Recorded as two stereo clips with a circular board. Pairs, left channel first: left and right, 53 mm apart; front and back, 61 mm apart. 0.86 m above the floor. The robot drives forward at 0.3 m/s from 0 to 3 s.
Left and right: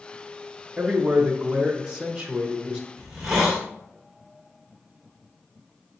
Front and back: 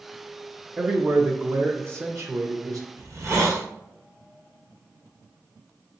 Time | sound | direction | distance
0.8 | a man speaking | 135° right | 0.7 m
3.0 | a hiss | 175° right | 1.1 m